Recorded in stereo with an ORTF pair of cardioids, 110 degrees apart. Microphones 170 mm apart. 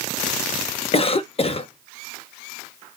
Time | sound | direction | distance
0.9 | a cough | 35° left | 0.6 m